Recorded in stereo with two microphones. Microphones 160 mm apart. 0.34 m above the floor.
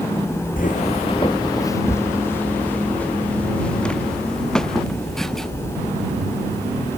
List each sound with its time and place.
0.6 s footsteps: 60° left (ahead or behind); by 5.5 s centre (ahead or behind)